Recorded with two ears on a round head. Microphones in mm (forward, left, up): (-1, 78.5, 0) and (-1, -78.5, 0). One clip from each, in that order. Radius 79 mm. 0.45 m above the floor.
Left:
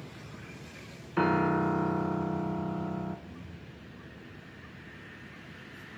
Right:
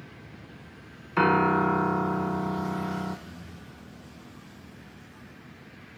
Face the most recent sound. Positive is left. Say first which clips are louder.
# right 2 dB
turn(degrees=-35)  # may be behind; listen again after turning